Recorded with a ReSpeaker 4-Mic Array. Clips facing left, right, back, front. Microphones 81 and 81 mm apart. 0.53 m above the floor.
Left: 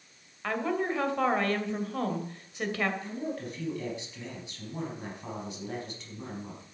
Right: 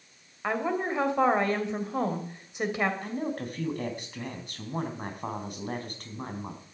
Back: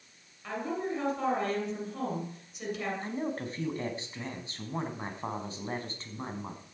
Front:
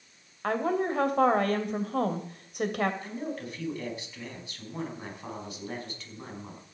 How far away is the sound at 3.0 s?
About 4 m.